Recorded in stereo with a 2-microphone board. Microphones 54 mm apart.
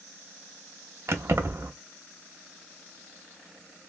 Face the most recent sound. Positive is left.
turn(degrees=-55)  # may be behind; listen again after turning